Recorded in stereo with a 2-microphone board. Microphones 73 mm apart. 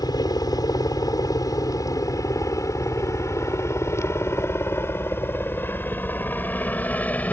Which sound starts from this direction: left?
A helicopter, at 0.0 s.